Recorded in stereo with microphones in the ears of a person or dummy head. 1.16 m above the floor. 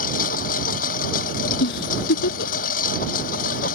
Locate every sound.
0.0 s a lawn mower: 50° left (ahead or behind)
1.6 s a giggle: 80° left